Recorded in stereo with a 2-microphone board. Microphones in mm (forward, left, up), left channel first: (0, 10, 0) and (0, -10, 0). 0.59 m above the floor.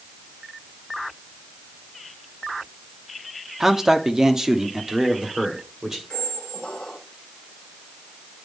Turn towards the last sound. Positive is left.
turn(degrees=65)  # may be behind; listen again after turning